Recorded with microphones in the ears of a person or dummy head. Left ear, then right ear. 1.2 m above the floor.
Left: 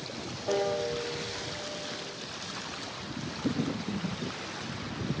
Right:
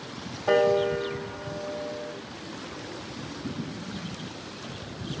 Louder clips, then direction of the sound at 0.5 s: Right 8 dB; 70° right (ahead or behind).